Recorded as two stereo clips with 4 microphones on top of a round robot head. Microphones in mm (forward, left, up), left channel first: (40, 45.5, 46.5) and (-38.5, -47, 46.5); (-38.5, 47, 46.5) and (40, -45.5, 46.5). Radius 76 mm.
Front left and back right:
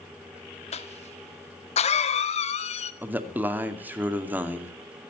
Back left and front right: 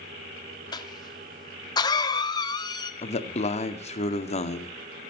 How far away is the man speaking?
About 2 m.